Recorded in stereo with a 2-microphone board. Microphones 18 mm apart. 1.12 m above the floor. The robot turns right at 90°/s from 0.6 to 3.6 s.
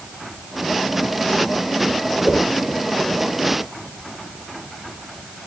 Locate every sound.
2.2 s a whoosh: 10° right (ahead or behind), 7.5 m; by 2.5 s 35° right (ahead or behind), 7.5 m